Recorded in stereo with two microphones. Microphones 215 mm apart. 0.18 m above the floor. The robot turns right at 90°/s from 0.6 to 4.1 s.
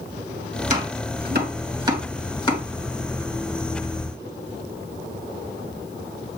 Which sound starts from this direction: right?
Chopping, at 0.7 s.